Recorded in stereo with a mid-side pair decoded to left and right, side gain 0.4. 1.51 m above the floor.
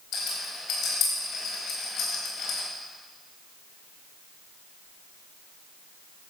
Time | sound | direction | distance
0.1 | a rattle | 70° left | 4.5 m